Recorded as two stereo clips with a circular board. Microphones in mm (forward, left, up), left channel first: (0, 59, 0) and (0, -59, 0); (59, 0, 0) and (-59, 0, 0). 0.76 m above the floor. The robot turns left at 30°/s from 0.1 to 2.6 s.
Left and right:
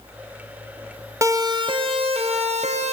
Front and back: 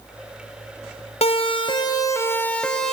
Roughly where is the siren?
Ahead right.